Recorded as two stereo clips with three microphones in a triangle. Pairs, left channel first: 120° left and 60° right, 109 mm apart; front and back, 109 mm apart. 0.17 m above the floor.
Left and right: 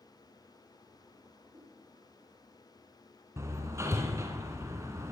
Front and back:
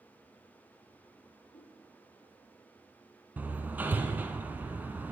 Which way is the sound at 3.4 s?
115° right.